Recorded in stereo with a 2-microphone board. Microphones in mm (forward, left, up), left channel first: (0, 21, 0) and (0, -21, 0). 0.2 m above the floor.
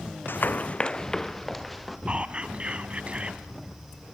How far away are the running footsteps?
About 0.8 m.